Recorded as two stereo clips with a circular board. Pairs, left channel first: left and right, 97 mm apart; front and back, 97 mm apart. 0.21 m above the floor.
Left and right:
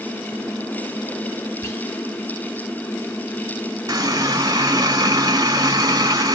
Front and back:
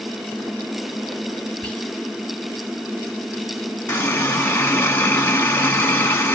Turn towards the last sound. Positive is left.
turn(degrees=-60)